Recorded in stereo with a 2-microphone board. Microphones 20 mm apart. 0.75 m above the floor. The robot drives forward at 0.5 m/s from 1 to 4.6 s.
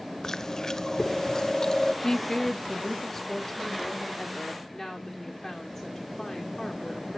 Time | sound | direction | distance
0.2 | chewing | 25° left (ahead or behind) | 0.5 m
2.0 | a woman speaking | 30° left (ahead or behind) | 0.6 m